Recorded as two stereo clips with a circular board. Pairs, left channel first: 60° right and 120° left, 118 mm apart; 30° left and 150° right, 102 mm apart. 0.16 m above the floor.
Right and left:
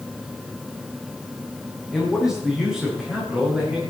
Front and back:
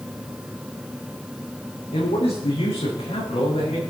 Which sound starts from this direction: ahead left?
A man speaking, at 1.9 s.